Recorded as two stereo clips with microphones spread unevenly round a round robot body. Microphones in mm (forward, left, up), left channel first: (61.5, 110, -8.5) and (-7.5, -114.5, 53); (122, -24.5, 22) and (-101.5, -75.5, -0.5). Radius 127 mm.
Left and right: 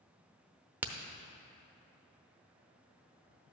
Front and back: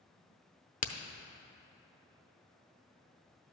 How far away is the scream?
I don't hear a scream.